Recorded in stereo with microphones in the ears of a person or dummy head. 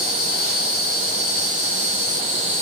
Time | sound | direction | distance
0.0 | an insect | 60° right (ahead or behind) | 6 m